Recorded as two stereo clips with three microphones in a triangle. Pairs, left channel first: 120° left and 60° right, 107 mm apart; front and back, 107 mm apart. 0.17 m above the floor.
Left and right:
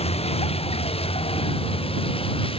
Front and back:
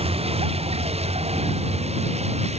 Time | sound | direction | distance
0.0 | a vehicle | 150° left | ?